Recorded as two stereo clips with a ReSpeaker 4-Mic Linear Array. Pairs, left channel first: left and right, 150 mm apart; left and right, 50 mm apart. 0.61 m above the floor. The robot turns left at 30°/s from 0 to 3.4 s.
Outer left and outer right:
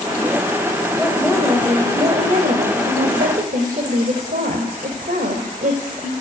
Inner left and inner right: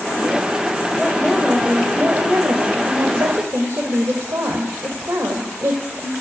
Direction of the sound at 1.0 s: 10° right.